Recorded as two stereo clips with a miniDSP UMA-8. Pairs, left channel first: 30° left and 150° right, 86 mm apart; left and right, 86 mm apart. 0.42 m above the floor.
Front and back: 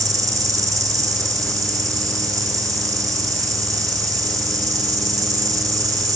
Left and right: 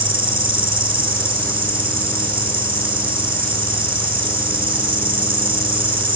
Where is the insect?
100° right, 2.5 m.